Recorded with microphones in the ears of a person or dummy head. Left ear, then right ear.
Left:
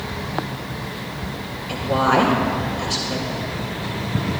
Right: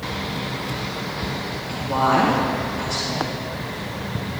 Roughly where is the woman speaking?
Centre.